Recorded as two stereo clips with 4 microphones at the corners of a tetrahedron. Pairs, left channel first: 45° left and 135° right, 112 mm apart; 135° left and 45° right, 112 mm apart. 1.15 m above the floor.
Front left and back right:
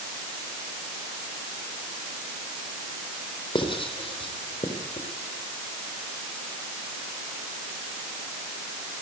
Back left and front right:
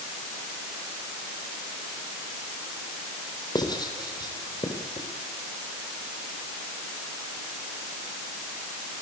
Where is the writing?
85° left, 4 m.